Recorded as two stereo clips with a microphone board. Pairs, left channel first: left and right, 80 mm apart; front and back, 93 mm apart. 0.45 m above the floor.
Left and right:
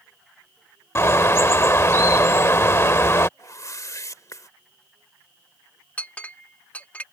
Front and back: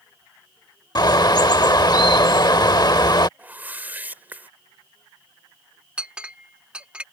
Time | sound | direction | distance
0.9 | a bird | 35° left | ?
3.4 | a whoosh | 115° left | ?
6.0 | a clink | 125° left | ?